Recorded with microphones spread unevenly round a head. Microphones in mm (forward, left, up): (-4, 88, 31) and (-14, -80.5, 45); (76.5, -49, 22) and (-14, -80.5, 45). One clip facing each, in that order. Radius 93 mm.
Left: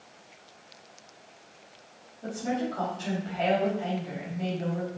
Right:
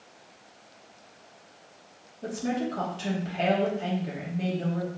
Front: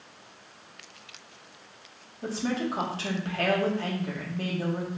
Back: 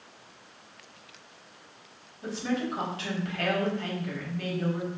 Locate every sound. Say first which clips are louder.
2.2 s a woman speaking: right 1 dB, front 1 dB; 35° right, 2.5 m